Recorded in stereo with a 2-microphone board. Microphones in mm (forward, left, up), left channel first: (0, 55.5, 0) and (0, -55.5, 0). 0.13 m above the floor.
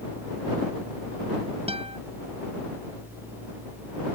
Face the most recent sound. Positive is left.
turn(degrees=-60)  # may be behind; listen again after turning